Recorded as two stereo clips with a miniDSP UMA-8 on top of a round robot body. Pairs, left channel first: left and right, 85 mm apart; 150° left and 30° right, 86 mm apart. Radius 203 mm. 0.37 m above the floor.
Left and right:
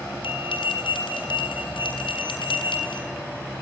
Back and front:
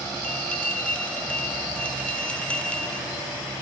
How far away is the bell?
About 7 m.